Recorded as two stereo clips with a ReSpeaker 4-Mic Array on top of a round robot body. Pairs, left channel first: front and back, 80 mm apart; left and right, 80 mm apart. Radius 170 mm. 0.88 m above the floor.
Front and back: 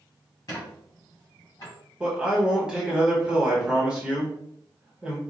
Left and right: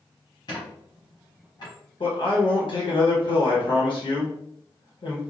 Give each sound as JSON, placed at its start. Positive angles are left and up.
{"t": 0.5, "sound": "a squeak", "azimuth_deg": 55, "distance_m": 1.0}
{"t": 2.0, "sound": "a man speaking", "azimuth_deg": 100, "distance_m": 1.3}